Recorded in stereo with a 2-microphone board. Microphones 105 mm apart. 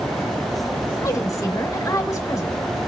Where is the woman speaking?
30° left (ahead or behind), 1.8 m.